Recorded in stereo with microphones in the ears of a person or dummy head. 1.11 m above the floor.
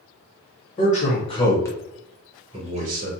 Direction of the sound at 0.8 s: 35° left (ahead or behind).